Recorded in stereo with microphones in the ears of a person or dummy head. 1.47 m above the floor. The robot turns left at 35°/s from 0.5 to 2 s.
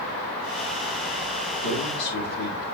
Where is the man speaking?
80° left, 3.5 m.